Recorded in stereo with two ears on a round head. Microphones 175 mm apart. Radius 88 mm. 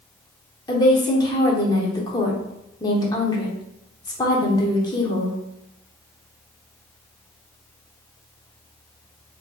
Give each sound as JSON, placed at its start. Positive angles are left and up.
{"t": 0.7, "sound": "a woman speaking", "side_deg": 20, "distance_m": 0.7}